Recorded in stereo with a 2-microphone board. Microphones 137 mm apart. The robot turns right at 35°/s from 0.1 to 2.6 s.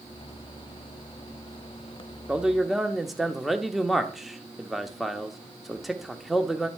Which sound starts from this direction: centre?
A man speaking, at 2.3 s.